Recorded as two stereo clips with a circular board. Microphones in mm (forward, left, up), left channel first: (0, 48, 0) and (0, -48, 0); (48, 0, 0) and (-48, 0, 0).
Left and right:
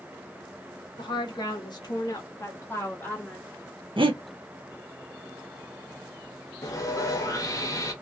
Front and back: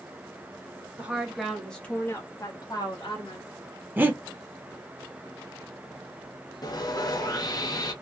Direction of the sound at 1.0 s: 110° left.